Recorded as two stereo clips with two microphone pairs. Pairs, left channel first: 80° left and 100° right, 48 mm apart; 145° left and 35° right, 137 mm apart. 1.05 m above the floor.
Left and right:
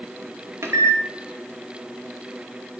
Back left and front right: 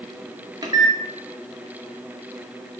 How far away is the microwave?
About 0.9 m.